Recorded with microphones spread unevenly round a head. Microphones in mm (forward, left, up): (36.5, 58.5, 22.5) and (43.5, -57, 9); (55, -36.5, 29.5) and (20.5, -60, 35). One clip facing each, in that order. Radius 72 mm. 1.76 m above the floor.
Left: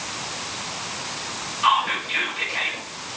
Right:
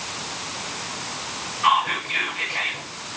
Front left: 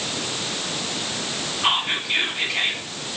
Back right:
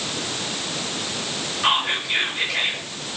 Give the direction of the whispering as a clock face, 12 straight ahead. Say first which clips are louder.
Even, back right 1 dB; 7 o'clock.